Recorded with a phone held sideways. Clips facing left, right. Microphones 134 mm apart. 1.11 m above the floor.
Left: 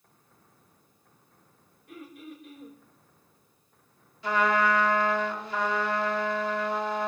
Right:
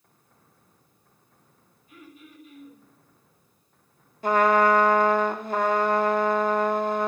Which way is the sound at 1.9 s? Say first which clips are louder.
Left 5 dB; 70° left (ahead or behind).